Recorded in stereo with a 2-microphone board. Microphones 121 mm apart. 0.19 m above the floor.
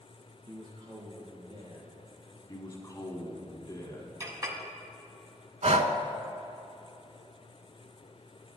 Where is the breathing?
70° right (ahead or behind), 0.5 m.